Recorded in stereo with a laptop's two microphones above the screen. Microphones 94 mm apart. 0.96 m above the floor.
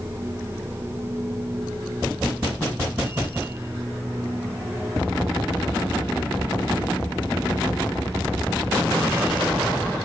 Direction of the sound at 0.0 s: 25° right (ahead or behind).